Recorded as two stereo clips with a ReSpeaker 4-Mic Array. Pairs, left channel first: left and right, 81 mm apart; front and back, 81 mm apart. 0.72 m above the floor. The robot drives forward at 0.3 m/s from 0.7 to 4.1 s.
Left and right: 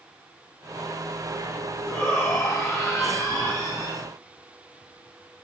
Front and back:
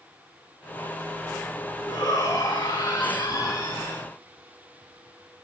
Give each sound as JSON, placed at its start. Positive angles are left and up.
{"t": 1.9, "sound": "a shout", "azimuth_deg": 40, "distance_m": 3.5}